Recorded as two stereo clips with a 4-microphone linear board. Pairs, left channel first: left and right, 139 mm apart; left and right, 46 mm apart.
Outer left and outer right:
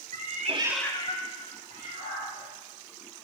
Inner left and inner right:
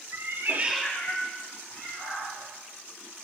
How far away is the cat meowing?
About 0.9 m.